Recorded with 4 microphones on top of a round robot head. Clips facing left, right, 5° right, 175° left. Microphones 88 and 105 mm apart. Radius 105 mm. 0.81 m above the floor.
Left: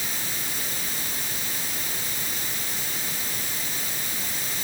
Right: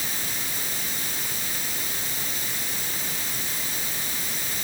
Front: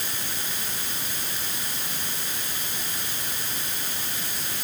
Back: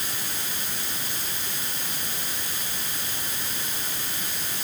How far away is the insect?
No insect in this recording.